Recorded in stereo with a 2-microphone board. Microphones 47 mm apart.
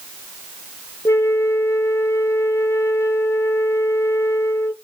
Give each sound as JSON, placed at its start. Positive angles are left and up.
{"t": 1.1, "sound": "a flute", "side_deg": 70, "distance_m": 0.5}